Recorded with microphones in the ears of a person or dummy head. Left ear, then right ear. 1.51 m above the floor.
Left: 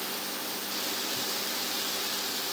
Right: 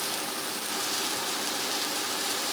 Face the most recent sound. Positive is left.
No sound to turn to.